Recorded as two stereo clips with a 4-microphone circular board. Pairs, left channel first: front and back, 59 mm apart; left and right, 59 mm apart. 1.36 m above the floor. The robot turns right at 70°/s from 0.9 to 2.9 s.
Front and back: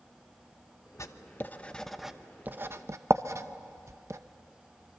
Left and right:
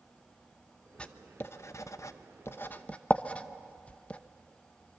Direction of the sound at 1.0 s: 20° left.